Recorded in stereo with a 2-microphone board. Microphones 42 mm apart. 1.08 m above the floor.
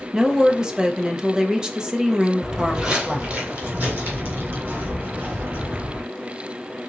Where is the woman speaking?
20° right (ahead or behind), 0.8 m.